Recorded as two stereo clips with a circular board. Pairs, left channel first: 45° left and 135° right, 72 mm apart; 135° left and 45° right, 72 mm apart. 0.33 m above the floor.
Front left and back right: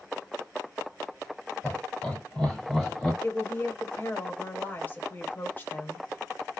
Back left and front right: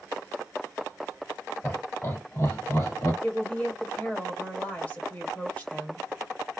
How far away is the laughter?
About 1.8 m.